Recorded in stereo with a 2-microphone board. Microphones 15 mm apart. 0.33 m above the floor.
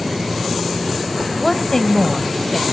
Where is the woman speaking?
40° left (ahead or behind), 1.1 m.